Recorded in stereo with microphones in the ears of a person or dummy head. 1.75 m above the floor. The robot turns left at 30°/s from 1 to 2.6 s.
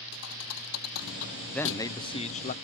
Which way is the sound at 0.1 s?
85° left.